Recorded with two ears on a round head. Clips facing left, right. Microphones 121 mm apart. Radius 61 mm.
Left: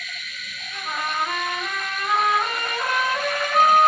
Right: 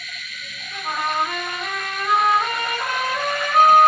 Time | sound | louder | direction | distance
0.7 | a trumpet | right 4 dB | 65° right (ahead or behind) | 1.6 m